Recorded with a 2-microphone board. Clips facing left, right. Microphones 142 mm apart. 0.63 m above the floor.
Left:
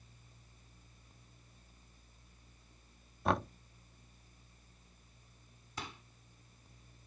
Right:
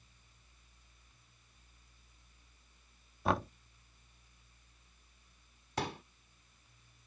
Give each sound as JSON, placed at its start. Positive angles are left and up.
{"t": 3.2, "sound": "knocking", "side_deg": 0}
{"t": 5.8, "sound": "a pop", "side_deg": -70}